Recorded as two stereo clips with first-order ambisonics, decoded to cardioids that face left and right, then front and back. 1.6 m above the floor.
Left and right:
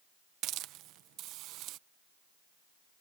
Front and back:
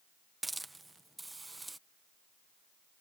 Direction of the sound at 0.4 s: 100° right.